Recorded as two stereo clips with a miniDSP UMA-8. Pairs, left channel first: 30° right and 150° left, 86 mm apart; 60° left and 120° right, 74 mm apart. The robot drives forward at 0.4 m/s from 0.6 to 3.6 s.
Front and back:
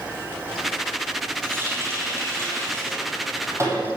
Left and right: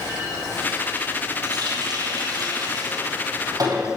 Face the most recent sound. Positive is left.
turn(degrees=-155)